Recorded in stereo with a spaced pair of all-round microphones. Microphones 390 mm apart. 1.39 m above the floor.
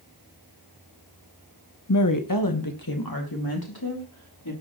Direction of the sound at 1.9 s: 45° left (ahead or behind).